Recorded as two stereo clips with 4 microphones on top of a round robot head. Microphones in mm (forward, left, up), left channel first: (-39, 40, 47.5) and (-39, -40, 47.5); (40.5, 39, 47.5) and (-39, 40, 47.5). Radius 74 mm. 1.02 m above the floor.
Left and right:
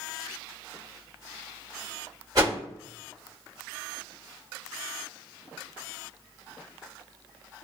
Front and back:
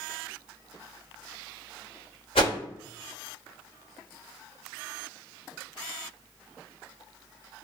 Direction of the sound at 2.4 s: 30° right.